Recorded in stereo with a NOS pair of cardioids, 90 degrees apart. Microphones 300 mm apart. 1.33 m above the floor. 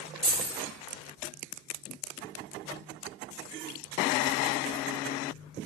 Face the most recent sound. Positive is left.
turn(degrees=-20)